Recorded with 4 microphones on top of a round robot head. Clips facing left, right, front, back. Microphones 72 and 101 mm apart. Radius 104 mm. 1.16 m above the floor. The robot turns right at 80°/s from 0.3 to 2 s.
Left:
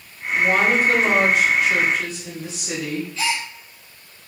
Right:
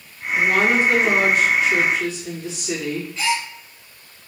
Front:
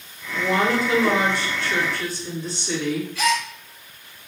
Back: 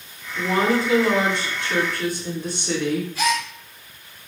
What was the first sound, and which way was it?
A woman speaking, 5° left.